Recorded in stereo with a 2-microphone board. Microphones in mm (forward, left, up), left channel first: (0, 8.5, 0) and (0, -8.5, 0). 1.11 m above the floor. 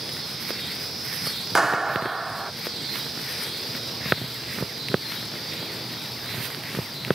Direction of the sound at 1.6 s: 20° right (ahead or behind).